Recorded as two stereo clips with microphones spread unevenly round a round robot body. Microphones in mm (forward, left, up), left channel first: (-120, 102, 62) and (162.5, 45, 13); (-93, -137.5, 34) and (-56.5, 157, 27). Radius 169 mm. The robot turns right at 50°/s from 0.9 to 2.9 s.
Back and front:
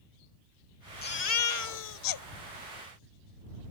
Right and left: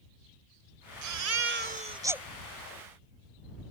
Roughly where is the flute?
I don't hear a flute.